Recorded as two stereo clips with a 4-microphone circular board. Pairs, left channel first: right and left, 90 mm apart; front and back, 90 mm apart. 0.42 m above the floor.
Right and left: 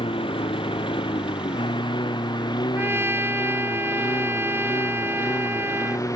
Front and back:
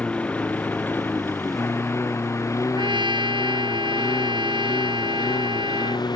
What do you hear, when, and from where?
0.0 s a lawn mower: 75° right; by 6.2 s 35° right
2.8 s a trumpet: 155° left